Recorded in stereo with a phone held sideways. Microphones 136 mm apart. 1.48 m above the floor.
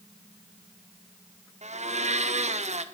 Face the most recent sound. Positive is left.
turn(degrees=-55)  # may be behind; listen again after turning